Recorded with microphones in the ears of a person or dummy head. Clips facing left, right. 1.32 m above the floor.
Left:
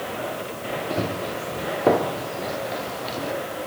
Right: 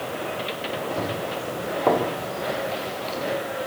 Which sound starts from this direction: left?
Running footsteps, at 0.9 s.